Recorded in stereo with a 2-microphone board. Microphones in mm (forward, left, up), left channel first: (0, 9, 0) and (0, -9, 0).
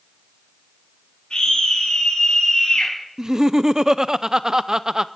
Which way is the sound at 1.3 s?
65° left (ahead or behind).